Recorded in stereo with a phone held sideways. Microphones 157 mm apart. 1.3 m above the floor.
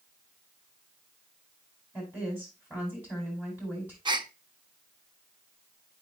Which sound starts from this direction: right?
A gasp, at 4.0 s.